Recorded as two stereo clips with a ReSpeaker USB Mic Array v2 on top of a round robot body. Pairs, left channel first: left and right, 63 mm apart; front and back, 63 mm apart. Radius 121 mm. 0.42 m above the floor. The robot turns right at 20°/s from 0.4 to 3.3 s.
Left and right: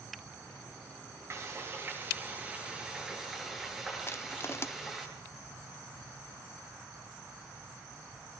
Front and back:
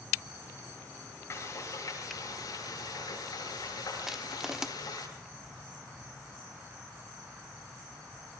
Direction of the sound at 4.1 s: 100° left.